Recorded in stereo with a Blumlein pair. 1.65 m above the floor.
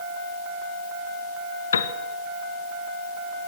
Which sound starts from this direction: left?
A piano, at 1.7 s.